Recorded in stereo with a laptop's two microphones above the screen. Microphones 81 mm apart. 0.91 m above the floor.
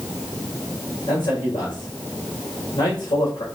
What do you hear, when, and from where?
1.1 s a man speaking: 65° left (ahead or behind), 3 m